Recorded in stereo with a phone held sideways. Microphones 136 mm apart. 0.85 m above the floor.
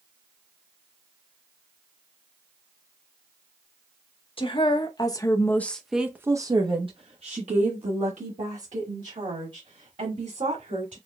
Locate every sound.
4.4 s a woman speaking: 40° left (ahead or behind), 1.0 m; by 11.0 s 65° right (ahead or behind), 2.5 m